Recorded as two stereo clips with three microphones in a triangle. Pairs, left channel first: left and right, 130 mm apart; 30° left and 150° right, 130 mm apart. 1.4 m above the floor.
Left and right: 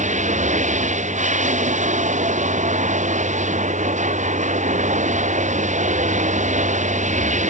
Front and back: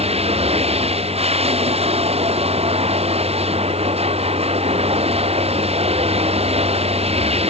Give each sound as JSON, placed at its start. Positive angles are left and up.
{"t": 0.0, "sound": "running water", "azimuth_deg": -110}